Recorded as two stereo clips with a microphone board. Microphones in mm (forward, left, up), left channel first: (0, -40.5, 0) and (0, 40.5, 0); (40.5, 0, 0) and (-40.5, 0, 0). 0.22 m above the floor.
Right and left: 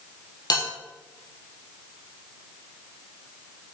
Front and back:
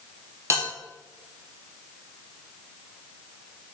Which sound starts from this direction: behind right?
A bell, at 0.5 s.